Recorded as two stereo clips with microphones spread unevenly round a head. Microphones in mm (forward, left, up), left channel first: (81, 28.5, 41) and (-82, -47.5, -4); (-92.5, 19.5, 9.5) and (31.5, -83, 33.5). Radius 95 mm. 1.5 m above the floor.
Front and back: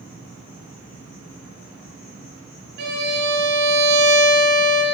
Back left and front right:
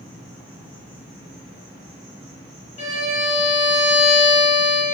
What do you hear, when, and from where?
0.0 s an insect: 50° left, 2.5 m
2.8 s a violin: straight behind, 1.8 m